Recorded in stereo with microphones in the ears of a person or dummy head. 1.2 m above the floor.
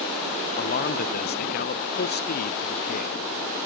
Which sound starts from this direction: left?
A man speaking, at 0.6 s.